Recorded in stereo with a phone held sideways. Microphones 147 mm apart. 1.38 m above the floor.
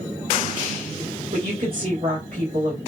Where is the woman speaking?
80° right, 1.4 m.